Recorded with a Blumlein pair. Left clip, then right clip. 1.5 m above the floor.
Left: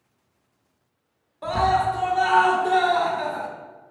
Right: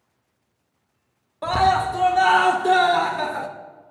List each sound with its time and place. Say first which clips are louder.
1.4 s a scream: right 2 dB; 20° right, 0.7 m